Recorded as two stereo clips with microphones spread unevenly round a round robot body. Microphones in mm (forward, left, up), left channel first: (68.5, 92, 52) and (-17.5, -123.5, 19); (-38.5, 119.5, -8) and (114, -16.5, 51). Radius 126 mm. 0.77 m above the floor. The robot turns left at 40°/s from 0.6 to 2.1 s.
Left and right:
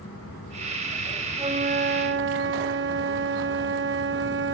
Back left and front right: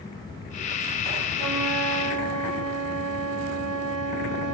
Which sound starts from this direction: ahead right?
A flute, at 1.4 s.